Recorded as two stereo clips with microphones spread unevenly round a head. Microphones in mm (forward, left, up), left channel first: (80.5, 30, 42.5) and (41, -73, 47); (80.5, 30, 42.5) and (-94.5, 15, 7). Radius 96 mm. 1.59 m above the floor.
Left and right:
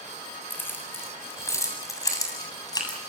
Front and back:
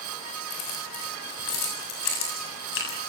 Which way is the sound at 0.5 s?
5° right.